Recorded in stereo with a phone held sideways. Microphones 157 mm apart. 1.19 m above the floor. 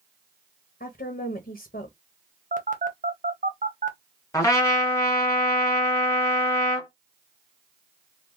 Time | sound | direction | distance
0.8 | a woman speaking | 75° left (ahead or behind) | 1.1 m
2.5 | a phone buzzing | 55° right (ahead or behind) | 0.9 m
4.3 | a trumpet | 20° left (ahead or behind) | 1.8 m